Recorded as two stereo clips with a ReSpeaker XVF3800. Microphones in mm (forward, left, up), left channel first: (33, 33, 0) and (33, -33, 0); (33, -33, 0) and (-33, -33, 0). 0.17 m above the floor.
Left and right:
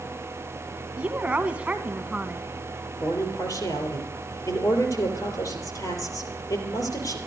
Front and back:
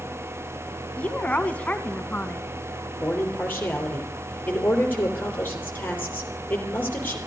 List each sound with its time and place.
1.0 s a woman speaking: 45° right, 1.1 m
3.0 s a man speaking: 60° left, 3.5 m